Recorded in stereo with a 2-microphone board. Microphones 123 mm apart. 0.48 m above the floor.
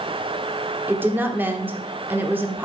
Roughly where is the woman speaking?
Centre.